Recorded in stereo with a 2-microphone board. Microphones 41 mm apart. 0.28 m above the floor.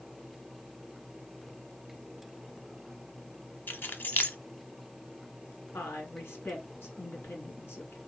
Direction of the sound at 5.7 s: 70° left (ahead or behind).